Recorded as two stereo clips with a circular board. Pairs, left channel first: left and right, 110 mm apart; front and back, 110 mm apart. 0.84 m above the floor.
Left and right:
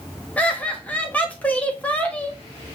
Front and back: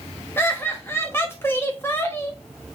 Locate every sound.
0.4 s laughter: 30° left, 0.8 m